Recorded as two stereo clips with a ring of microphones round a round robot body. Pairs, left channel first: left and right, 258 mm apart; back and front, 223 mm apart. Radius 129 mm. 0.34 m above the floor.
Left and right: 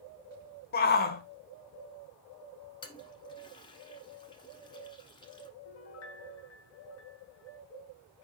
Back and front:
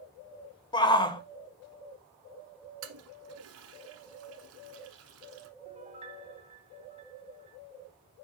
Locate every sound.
0.7 s a shout: 120° left, 1.0 m
2.8 s a toilet flushing: 15° left, 1.1 m
5.7 s a piano: 60° left, 1.2 m